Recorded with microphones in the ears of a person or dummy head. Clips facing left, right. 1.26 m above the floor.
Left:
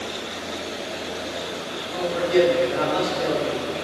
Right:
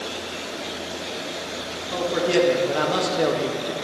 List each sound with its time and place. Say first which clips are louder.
1.9 s a man speaking: left 1 dB; 65° right (ahead or behind), 1.6 m